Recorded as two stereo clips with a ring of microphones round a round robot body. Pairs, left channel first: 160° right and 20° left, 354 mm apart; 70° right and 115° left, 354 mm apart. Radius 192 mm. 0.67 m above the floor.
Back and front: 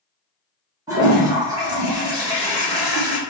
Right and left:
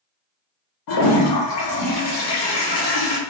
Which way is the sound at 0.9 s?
60° right.